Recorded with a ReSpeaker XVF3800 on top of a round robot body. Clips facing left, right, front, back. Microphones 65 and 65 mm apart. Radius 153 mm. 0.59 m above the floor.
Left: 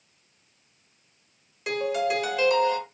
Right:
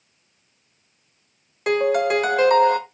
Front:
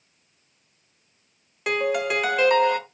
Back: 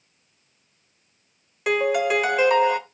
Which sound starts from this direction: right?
A piano, at 1.7 s.